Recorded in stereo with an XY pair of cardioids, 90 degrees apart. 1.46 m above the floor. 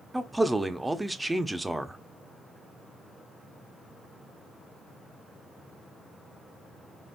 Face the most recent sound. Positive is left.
turn(degrees=-15)